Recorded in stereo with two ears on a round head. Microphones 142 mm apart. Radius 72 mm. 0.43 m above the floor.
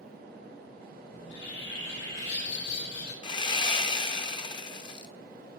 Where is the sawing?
30° left (ahead or behind), 0.6 m.